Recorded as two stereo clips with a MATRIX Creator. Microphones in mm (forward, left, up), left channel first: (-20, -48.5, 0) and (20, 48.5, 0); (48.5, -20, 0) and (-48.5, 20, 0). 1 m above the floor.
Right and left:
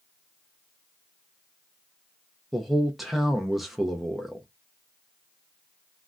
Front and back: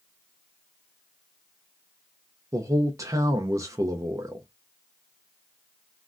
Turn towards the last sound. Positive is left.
turn(degrees=155)